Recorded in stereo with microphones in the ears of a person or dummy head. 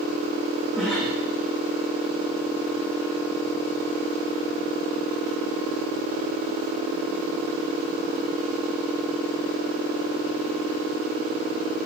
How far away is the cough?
About 2.5 m.